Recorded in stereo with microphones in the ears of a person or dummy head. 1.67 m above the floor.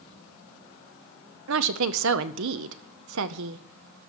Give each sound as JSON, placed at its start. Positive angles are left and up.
{"t": 1.5, "sound": "a woman speaking", "side_deg": -70, "distance_m": 0.7}